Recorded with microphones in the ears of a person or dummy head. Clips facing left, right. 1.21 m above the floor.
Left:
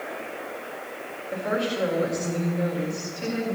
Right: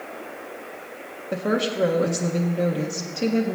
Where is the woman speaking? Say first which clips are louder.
Right 3 dB; 50° right (ahead or behind), 1.7 m.